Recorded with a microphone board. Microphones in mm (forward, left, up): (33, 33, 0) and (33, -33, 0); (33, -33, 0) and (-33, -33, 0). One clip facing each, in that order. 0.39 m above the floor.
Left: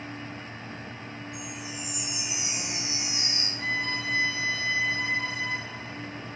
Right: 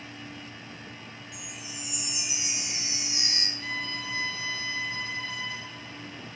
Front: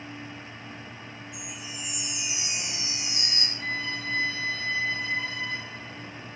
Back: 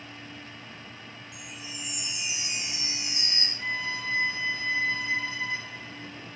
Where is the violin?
115° left, 2.5 m.